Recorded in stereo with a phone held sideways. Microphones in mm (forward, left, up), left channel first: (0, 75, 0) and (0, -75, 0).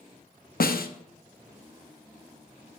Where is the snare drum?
75° left (ahead or behind), 0.7 m.